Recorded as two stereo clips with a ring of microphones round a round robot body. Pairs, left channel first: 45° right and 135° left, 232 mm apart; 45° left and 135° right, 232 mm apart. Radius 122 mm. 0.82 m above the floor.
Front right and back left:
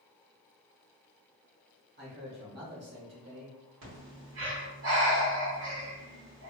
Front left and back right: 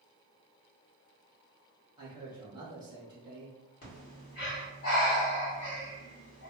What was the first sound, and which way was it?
A man speaking, 155° left.